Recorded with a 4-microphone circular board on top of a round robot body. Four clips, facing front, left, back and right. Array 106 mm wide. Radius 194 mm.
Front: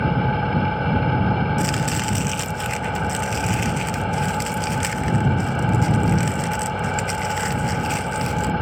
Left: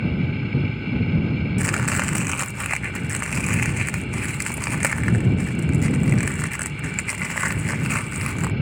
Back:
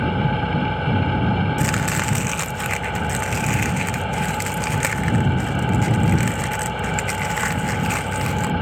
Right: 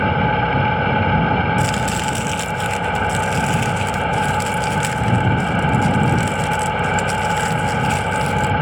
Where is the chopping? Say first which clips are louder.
Right 5 dB, back 1 dB; 130° left.